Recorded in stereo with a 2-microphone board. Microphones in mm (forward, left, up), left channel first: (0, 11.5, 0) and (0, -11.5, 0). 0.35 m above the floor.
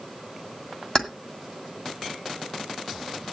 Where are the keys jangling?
35° left (ahead or behind), 1.6 m.